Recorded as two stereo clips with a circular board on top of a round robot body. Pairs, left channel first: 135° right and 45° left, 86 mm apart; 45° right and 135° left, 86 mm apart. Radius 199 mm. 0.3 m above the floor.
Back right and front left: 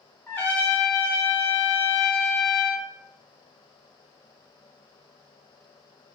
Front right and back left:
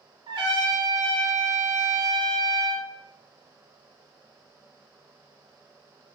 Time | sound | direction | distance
0.3 | a trumpet | 160° left | 0.9 m